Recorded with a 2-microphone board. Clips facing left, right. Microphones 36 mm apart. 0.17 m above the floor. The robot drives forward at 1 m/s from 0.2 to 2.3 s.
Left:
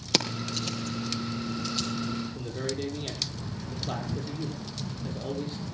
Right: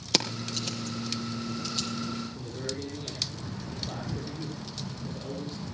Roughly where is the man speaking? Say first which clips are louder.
Left 3 dB; left.